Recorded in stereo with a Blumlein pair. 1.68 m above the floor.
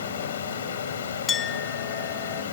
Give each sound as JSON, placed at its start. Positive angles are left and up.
{"t": 0.0, "sound": "a fan", "azimuth_deg": 65}
{"t": 1.3, "sound": "a clink", "azimuth_deg": 20}